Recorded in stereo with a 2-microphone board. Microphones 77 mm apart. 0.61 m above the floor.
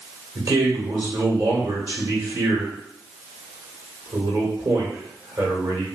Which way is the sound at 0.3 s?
45° right (ahead or behind).